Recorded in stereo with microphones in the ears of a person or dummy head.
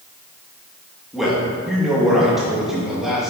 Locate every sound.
1.1 s a man speaking: 5° right (ahead or behind), 2.5 m